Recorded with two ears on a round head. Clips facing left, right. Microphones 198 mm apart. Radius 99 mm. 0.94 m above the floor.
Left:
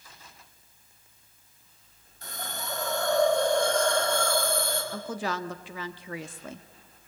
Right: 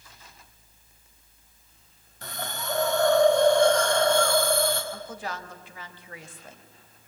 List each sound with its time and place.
2.2 s a hiss: 55° right (ahead or behind), 5 m
4.9 s a woman speaking: 60° left (ahead or behind), 1.4 m